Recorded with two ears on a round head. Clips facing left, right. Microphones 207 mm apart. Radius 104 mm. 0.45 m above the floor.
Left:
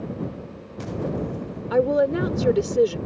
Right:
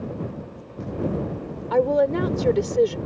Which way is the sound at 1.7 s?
10° left (ahead or behind).